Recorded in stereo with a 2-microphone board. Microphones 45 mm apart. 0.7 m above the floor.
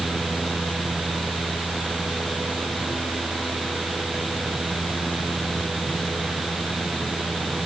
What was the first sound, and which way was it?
Only background noise.